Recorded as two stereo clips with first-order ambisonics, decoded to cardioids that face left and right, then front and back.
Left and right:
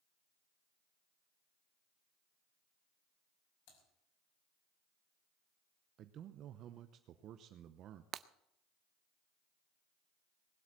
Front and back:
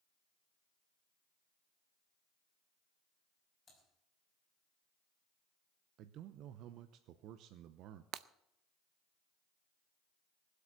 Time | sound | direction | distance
3.7 | typing on a keyboard | 75° left | 5.5 m
6.0 | a man speaking | 140° right | 0.8 m
8.1 | breaking glass | 140° right | 0.5 m